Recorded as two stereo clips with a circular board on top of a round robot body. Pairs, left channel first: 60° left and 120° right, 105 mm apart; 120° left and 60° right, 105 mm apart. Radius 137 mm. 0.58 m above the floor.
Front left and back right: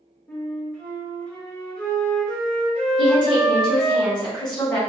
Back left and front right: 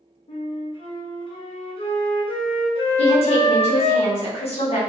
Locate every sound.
0.3 s a flute: 135° left, 0.9 m
3.0 s a woman speaking: 110° left, 1.4 m